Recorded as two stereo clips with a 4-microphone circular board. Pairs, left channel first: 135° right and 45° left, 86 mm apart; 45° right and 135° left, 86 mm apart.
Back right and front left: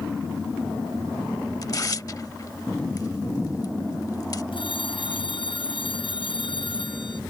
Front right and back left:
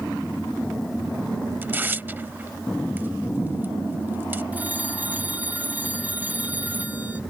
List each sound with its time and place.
1.6 s tearing paper: 165° right
4.5 s a phone ringing: 155° right